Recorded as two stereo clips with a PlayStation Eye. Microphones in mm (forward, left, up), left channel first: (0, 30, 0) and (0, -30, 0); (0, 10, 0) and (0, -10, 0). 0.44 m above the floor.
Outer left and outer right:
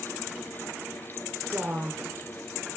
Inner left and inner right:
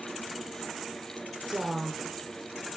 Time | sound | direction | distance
1.5 | a woman speaking | 40° right (ahead or behind) | 1.1 m